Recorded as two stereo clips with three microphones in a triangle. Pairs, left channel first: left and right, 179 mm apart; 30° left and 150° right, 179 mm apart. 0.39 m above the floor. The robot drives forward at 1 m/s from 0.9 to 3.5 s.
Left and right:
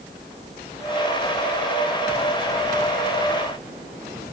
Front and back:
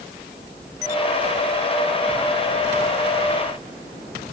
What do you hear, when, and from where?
Only background noise.